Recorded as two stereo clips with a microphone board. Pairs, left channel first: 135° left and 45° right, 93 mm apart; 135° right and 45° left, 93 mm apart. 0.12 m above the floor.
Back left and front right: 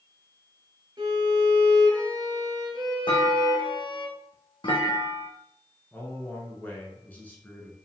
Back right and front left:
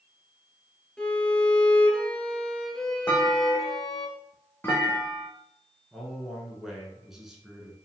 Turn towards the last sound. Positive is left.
turn(degrees=120)